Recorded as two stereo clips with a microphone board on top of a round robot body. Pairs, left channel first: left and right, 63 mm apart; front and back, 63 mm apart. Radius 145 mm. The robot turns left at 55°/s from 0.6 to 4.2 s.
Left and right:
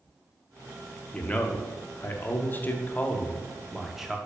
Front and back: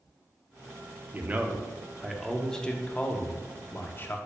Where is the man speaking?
150° left, 0.6 m; by 4.2 s 15° right, 0.6 m.